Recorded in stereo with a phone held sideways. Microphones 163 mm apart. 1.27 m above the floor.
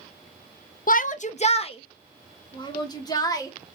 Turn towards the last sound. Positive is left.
turn(degrees=20)  # may be behind; listen again after turning